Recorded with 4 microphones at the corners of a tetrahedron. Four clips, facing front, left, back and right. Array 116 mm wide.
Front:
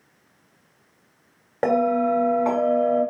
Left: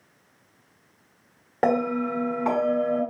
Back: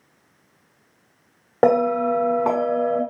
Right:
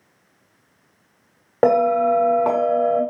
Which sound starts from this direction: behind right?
A bell, at 1.6 s.